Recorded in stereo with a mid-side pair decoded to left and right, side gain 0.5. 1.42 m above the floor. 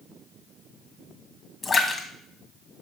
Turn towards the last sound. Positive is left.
turn(degrees=30)